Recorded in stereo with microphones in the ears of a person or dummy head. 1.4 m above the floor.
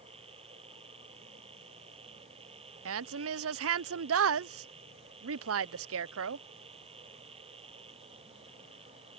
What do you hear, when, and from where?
0.0 s a machine running: 30° right (ahead or behind)
2.9 s a woman speaking: 65° right (ahead or behind)